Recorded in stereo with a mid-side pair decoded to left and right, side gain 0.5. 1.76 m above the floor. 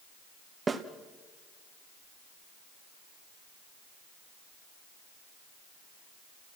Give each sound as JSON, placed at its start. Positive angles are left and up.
{"t": 0.7, "sound": "a snare drum", "azimuth_deg": -30, "distance_m": 1.8}